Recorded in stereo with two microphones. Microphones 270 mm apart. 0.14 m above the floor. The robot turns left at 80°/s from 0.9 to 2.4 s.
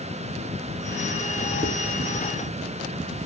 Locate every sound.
1.6 s dishes clattering: 35° right (ahead or behind), 1.3 m; by 1.8 s 25° right (ahead or behind), 1.3 m